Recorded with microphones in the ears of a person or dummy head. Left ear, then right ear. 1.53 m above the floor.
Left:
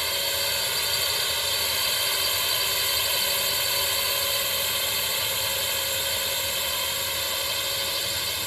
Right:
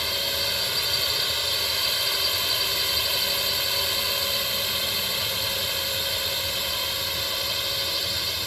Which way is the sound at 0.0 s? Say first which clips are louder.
Right 1 dB; 25° left (ahead or behind).